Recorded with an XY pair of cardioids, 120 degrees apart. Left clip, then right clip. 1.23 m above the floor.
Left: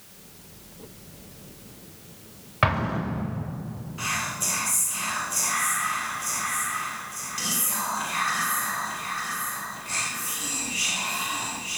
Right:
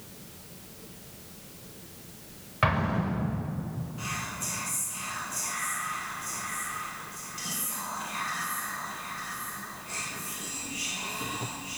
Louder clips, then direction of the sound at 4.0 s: Left 7 dB; 45° left.